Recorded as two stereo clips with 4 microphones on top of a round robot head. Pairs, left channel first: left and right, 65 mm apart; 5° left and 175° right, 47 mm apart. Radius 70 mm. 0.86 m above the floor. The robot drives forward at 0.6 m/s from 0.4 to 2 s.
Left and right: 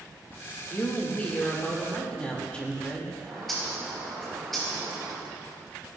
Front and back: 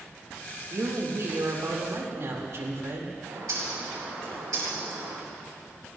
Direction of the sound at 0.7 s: 155° left.